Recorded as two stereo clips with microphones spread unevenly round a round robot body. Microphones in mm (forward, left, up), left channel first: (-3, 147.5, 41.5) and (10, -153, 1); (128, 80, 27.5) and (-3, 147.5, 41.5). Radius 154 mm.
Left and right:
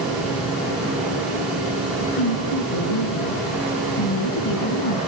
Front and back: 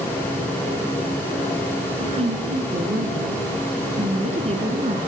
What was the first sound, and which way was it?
A woman speaking, 110° left.